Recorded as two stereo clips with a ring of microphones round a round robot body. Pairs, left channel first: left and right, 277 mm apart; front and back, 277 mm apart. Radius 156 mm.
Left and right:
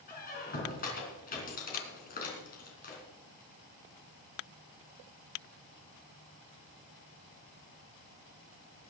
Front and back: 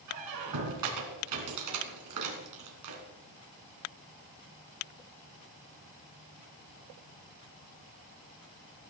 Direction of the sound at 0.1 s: 150° left.